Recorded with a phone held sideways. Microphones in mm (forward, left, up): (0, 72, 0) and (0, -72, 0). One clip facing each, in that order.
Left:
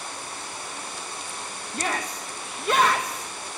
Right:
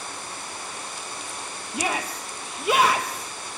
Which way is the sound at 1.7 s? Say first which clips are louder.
Right 2 dB; 10° right (ahead or behind).